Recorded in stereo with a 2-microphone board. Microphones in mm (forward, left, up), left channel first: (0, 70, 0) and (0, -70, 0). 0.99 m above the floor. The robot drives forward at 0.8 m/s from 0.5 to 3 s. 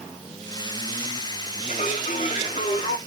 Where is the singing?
60° left (ahead or behind), 2 m; by 3.0 s 40° left (ahead or behind), 2.5 m.